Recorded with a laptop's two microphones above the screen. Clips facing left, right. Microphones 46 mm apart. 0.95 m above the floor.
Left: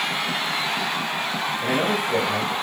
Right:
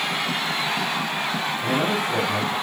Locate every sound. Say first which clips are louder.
1.6 s a man speaking: left 1 dB; 55° left (ahead or behind), 1.7 m